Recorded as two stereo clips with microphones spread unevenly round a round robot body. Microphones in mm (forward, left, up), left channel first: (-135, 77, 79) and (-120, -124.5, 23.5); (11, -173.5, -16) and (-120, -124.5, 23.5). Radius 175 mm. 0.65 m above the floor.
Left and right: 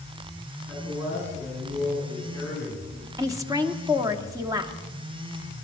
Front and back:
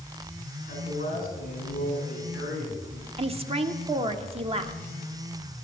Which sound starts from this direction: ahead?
A man speaking, at 0.7 s.